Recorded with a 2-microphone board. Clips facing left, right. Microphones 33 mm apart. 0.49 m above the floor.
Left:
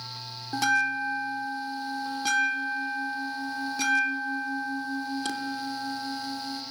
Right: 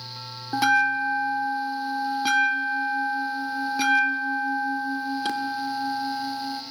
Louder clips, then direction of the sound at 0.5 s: Right 4 dB; 20° right (ahead or behind).